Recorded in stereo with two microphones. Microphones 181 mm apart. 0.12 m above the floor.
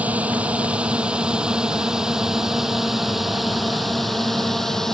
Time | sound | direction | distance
0.0 | a drone | 10° right (ahead or behind) | ?